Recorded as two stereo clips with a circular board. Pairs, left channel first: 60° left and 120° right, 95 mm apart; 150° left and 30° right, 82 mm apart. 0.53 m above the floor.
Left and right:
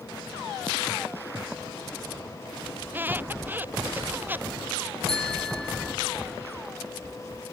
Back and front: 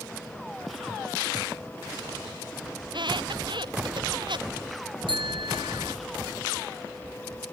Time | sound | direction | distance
2.8 | a squeak | 50° right | ?
5.1 | a bicycle bell | 25° right | ?